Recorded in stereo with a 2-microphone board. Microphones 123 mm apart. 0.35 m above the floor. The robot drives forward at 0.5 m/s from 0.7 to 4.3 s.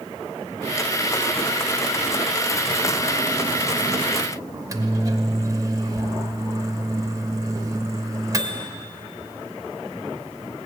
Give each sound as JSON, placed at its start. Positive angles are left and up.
{"t": 4.5, "sound": "a microwave", "side_deg": -30, "distance_m": 0.8}